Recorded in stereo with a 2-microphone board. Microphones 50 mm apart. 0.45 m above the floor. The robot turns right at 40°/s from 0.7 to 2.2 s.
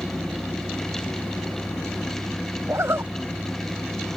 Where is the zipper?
70° right (ahead or behind).